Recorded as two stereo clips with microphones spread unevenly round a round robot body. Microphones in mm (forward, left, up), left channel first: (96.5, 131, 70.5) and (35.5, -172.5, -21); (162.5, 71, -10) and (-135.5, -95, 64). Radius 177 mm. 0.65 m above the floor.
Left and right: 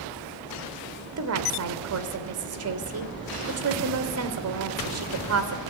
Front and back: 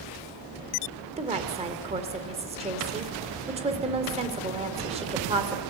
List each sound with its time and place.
1.2 s a woman speaking: 75° right, 2.5 m